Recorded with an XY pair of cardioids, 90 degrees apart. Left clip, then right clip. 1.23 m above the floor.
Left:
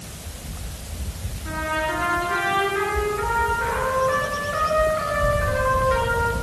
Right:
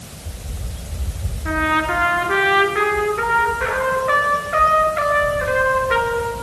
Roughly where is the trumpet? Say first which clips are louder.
Right 6 dB; ahead right.